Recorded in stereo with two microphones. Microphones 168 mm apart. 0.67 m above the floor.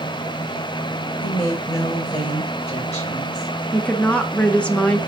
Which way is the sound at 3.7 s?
10° left (ahead or behind).